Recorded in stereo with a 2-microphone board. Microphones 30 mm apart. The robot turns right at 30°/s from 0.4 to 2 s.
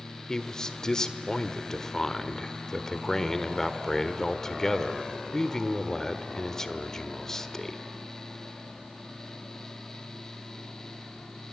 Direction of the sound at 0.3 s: 20° left (ahead or behind).